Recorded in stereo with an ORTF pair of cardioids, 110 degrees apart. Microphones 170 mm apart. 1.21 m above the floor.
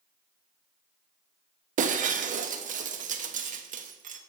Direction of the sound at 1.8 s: 50° right.